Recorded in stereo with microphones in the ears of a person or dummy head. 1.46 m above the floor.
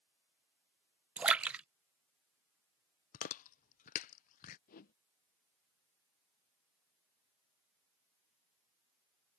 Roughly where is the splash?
Centre.